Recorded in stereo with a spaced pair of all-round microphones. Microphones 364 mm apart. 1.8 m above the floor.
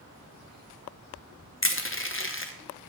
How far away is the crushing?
About 1.0 m.